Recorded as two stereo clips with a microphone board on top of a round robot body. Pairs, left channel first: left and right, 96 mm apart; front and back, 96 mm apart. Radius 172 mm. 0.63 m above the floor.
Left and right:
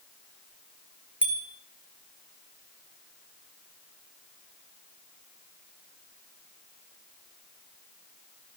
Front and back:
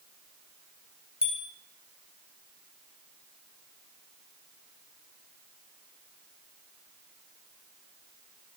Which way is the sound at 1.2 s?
15° right.